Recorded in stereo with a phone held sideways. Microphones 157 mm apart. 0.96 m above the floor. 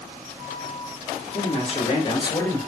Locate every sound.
1.3 s a man speaking: 45° left (ahead or behind), 1.3 m; by 2.6 s 10° left (ahead or behind), 0.8 m